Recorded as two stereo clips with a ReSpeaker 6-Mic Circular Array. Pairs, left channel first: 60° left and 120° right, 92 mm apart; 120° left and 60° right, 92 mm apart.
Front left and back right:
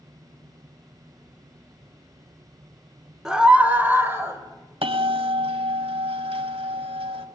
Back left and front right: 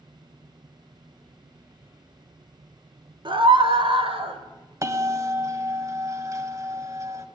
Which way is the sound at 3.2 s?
35° right.